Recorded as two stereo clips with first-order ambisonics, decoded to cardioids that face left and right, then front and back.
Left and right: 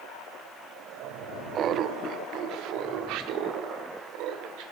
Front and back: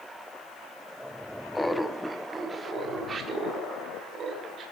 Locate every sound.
1.6 s laughter: 75° right, 0.6 m; by 4.6 s 120° right, 1.9 m